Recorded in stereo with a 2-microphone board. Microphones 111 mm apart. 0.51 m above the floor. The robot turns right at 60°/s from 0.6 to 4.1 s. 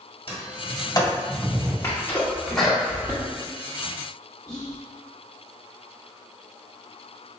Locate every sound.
0.3 s a sliding door: 55° left (ahead or behind), 1.1 m; by 1.7 s 10° right (ahead or behind), 1.1 m
1.8 s a sneeze: 25° left (ahead or behind), 0.7 m; by 3.2 s 20° right (ahead or behind), 0.7 m
4.5 s whispering: 5° left (ahead or behind), 0.9 m